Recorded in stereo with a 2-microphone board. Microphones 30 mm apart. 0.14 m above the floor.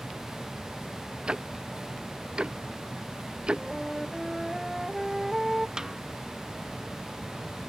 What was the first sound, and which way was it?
Ticking, 35° right (ahead or behind).